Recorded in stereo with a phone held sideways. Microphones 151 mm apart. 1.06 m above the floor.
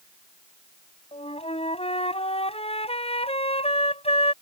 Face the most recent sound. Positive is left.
turn(degrees=40)  # may be behind; listen again after turning